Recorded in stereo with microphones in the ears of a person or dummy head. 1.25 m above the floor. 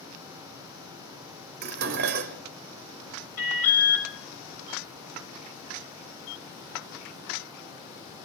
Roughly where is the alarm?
Centre.